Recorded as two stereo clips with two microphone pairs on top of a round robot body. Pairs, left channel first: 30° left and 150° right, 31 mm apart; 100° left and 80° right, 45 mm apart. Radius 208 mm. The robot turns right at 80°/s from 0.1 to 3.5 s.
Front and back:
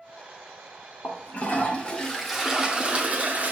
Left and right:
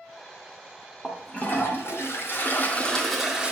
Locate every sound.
1.0 s a toilet flushing: 25° left, 2 m; by 3.5 s 135° right, 2 m